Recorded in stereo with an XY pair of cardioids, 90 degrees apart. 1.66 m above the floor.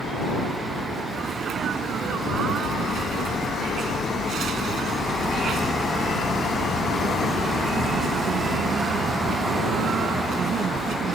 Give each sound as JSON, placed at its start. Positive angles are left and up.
{"t": 1.1, "sound": "a sneeze", "azimuth_deg": -70}